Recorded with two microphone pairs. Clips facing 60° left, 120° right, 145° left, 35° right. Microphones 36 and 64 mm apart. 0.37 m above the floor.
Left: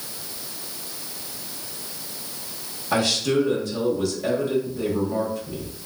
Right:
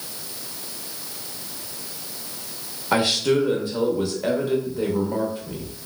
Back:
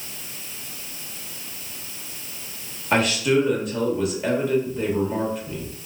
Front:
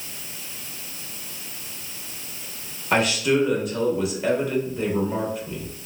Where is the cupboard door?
No cupboard door in this recording.